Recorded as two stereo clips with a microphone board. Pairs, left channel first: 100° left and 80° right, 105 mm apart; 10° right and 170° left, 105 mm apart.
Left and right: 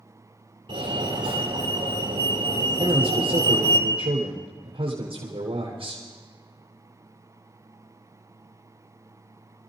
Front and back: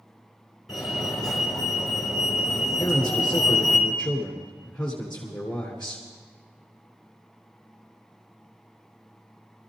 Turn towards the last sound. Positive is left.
turn(degrees=-85)